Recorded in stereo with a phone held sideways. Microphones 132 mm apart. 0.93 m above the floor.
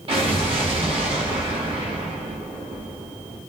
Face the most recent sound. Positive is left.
turn(degrees=-40)  # may be behind; listen again after turning